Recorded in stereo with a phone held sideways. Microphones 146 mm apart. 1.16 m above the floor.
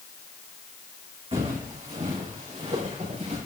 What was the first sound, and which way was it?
Footsteps, 40° right (ahead or behind).